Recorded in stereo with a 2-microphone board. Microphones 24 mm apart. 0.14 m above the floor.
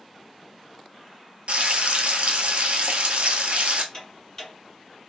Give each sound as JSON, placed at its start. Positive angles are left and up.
{"t": 1.5, "sound": "frying", "side_deg": -60, "distance_m": 0.6}
{"t": 3.9, "sound": "ticking", "side_deg": 20, "distance_m": 1.5}